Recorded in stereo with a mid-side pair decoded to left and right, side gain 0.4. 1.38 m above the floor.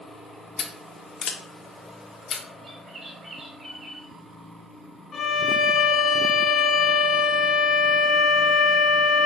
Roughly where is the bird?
Ahead right.